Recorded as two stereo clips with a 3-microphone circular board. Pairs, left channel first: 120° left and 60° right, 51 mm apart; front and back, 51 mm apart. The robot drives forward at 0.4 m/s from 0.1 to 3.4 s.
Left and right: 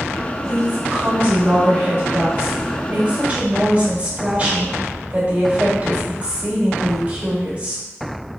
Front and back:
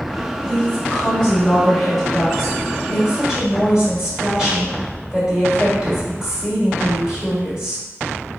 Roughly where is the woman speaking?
Ahead right.